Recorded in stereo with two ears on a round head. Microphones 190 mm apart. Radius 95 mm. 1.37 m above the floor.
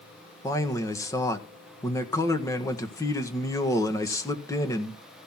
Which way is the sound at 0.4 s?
15° left (ahead or behind).